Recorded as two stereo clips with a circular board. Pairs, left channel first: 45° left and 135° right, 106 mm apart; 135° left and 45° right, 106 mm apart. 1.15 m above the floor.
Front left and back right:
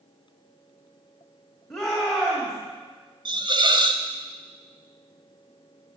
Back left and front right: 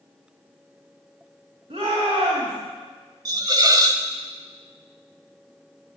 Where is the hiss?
95° right, 1.1 m.